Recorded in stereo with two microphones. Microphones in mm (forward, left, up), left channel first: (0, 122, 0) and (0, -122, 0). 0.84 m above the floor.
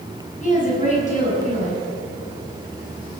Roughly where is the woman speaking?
Left.